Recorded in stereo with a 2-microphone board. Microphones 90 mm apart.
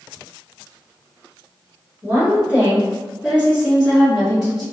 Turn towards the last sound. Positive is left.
turn(degrees=-5)  # may be behind; listen again after turning